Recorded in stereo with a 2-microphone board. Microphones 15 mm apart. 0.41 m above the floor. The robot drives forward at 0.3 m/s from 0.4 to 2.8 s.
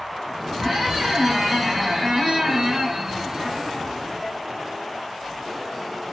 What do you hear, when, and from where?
0.6 s a squeak: 15° right (ahead or behind), 1.1 m; by 4.4 s 35° right (ahead or behind), 0.5 m